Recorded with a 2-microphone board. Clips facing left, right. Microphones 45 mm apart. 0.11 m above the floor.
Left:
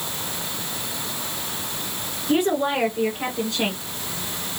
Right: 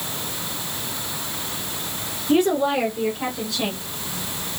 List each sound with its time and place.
2.3 s a woman speaking: 20° left (ahead or behind), 1.7 m; by 3.8 s 35° left (ahead or behind), 2 m